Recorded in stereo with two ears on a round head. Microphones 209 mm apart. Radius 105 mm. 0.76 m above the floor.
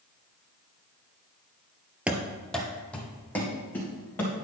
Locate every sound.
2.1 s running footsteps: 5° right (ahead or behind), 0.8 m; by 4.3 s 10° left (ahead or behind), 3.5 m